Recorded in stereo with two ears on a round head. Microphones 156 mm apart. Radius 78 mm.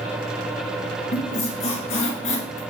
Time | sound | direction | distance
1.1 | a squeak | 40° left (ahead or behind) | 1.7 m